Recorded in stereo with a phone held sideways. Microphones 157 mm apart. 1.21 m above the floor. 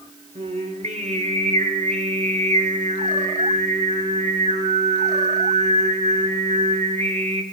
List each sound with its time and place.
0.3 s singing: 50° right (ahead or behind), 1.4 m